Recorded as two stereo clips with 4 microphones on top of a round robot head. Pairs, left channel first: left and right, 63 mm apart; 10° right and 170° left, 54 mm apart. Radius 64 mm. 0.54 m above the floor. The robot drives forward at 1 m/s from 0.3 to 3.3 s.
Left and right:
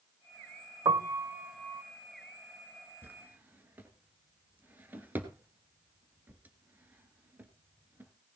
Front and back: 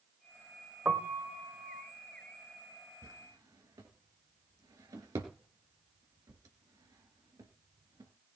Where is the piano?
115° right, 0.6 m; by 1.8 s 155° right, 1.4 m.